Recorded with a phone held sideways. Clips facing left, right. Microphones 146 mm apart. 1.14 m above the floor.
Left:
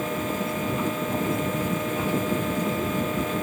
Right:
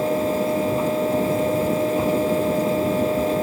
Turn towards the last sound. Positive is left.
turn(degrees=-35)  # may be behind; listen again after turning